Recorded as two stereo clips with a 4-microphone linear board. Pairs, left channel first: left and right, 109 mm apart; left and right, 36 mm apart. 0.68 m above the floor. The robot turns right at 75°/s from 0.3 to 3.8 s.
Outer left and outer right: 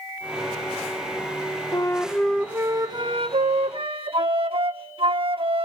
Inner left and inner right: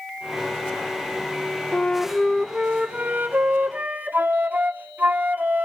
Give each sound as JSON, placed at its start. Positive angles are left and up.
{"t": 1.7, "sound": "a flute", "azimuth_deg": 140, "distance_m": 1.3}